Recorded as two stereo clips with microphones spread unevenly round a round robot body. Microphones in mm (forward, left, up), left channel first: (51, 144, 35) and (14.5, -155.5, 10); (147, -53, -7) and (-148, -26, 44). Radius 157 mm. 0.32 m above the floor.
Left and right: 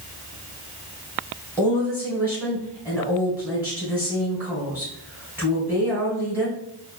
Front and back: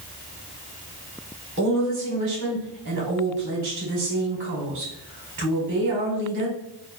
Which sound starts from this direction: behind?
A woman speaking, at 1.6 s.